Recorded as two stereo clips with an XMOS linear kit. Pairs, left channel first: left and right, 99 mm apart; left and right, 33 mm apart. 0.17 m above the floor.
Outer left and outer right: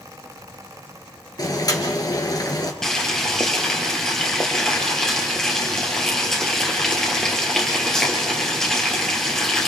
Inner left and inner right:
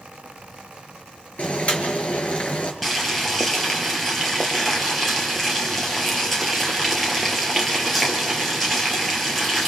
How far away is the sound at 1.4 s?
About 2.5 m.